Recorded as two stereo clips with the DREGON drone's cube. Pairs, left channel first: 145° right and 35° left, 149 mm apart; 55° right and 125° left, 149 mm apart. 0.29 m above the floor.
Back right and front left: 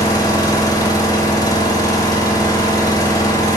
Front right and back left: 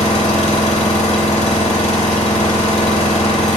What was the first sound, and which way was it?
An engine running, 85° right.